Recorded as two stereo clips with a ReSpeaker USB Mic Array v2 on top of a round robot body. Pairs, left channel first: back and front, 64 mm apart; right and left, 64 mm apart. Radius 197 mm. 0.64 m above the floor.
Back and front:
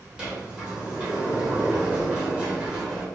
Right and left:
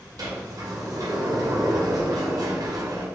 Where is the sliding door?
75° left, 1.3 m.